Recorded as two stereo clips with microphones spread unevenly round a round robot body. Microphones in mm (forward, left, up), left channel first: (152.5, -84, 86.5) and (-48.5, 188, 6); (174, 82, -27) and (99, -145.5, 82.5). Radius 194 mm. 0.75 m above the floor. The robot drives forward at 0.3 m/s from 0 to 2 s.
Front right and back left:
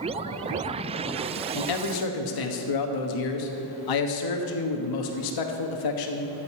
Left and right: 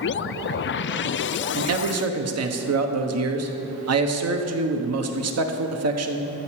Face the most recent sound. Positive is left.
turn(degrees=-75)